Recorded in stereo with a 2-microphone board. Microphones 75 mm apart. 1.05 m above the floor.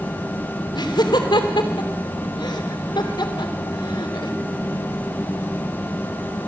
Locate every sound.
0.7 s laughter: 85° left, 3 m